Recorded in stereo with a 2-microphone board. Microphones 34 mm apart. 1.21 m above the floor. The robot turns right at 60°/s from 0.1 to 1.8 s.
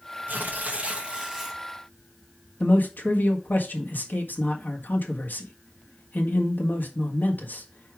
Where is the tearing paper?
80° right, 1.4 m; by 1.6 s straight ahead, 1.4 m.